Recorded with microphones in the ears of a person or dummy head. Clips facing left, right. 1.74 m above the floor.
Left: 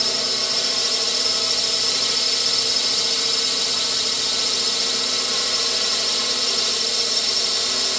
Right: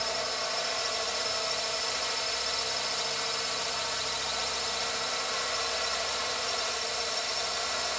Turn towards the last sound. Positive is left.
turn(degrees=45)  # may be behind; listen again after turning